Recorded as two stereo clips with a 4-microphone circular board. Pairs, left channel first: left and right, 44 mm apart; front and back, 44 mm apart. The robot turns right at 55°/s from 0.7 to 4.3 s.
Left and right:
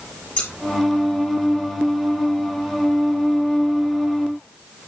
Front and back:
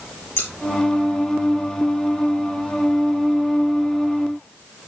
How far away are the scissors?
About 5 m.